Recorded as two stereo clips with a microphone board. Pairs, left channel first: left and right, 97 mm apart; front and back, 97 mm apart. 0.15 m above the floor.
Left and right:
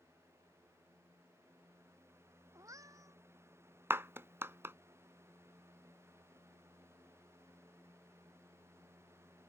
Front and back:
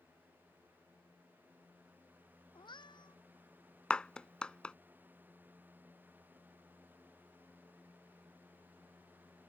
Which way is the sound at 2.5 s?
35° right.